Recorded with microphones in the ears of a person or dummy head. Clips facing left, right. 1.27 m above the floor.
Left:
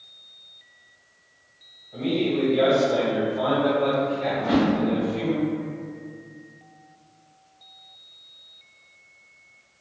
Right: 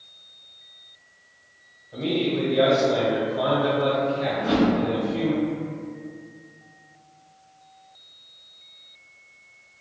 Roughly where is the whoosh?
Right.